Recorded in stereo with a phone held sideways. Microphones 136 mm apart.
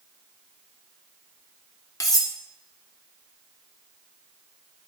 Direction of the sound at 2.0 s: 25° left (ahead or behind).